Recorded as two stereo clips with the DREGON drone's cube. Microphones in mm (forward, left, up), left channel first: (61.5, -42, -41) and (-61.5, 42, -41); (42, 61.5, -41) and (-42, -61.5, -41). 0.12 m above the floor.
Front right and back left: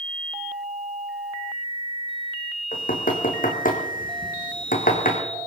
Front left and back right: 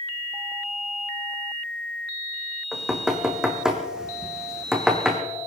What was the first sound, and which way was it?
Knocking, 40° right.